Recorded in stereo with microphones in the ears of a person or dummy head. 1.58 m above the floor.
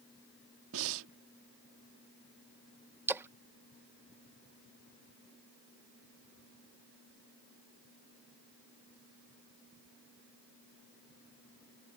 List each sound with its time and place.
0.7 s breathing: 70° right (ahead or behind)
3.1 s a splash: 10° right (ahead or behind)